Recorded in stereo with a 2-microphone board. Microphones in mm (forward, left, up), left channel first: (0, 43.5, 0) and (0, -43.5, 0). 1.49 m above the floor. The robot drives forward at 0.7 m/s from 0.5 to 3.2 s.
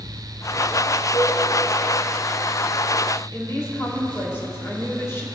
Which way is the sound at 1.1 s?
70° left (ahead or behind).